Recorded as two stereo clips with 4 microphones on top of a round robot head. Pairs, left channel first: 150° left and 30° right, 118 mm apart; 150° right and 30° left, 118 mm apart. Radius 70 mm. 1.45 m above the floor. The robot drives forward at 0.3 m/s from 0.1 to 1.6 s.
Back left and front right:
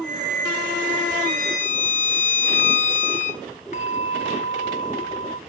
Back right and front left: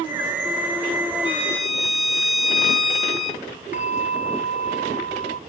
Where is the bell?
Straight behind, 0.9 m.